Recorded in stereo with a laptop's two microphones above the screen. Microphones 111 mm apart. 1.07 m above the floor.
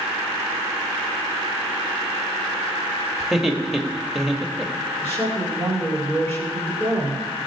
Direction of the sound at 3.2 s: Centre (ahead or behind).